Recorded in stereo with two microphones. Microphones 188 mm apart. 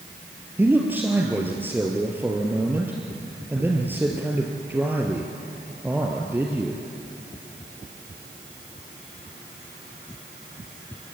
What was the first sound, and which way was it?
A man speaking, 10° right (ahead or behind).